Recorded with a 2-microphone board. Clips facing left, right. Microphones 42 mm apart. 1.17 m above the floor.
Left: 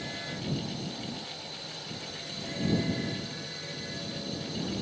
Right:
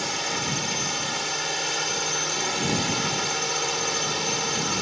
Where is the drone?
70° right (ahead or behind).